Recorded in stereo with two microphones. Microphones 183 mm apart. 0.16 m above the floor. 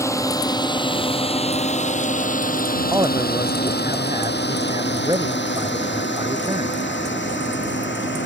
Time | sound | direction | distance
0.0 | a drone | 15° left (ahead or behind) | ?
2.9 | a man speaking | 20° right (ahead or behind) | ?